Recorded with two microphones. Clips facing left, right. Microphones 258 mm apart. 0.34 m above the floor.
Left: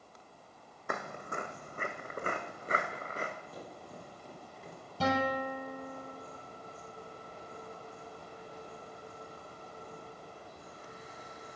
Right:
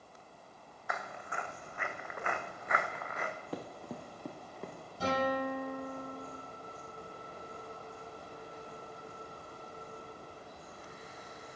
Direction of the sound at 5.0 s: 75° left (ahead or behind).